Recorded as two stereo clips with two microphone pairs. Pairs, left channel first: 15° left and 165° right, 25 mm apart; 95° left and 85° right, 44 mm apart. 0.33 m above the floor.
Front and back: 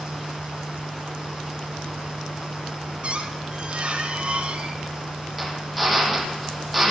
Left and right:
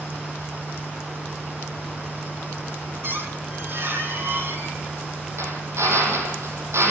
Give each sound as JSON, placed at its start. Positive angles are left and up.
{"t": 3.0, "sound": "a squeak", "azimuth_deg": -120, "distance_m": 3.5}
{"t": 5.4, "sound": "a drill", "azimuth_deg": -75, "distance_m": 7.5}